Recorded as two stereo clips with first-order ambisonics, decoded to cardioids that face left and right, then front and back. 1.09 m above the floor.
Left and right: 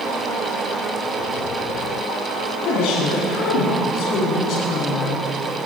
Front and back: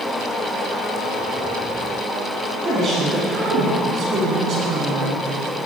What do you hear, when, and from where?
2.6 s a woman speaking: 120° left, 8 m; by 5.2 s 130° left, 7.5 m